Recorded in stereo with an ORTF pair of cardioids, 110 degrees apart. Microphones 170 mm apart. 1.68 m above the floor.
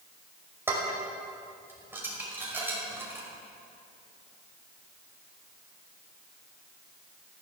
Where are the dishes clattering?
15° right, 5 m.